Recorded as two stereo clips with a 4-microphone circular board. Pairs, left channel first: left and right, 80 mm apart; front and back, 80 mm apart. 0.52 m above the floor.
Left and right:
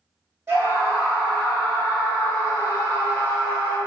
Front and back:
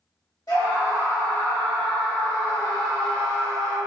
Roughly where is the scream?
Ahead right.